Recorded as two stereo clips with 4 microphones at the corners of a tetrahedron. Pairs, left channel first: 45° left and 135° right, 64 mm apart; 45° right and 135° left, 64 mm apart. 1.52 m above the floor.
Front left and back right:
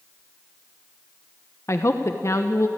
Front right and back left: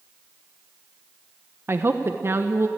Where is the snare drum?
I don't hear a snare drum.